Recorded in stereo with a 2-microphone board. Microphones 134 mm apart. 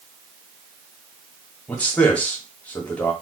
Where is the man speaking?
10° left (ahead or behind), 1.3 m.